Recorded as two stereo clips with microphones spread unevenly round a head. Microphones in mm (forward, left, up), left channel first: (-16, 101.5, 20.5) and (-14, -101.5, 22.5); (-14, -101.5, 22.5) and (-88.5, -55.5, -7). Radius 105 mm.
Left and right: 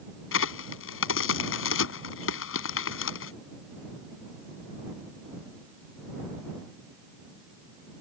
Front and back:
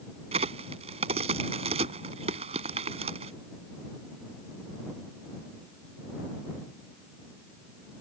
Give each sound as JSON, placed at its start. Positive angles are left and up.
{"t": 0.3, "sound": "a crack", "azimuth_deg": 115}